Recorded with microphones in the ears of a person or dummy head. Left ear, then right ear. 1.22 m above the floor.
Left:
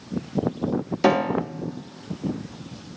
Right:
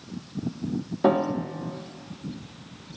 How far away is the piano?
About 0.7 m.